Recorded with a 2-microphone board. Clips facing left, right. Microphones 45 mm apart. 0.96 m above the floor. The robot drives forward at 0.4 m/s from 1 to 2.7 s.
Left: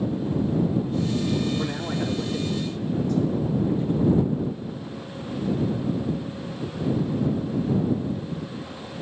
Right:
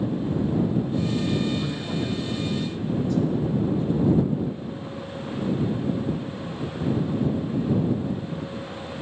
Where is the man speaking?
75° left (ahead or behind), 2 m.